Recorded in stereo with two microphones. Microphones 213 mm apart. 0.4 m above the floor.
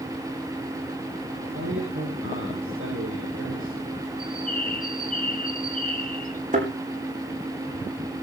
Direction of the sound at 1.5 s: 80° right.